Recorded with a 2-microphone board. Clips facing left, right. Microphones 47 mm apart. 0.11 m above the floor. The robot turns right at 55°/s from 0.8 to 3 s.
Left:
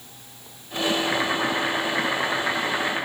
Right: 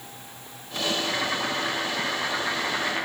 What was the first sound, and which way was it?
Boiling, 60° left.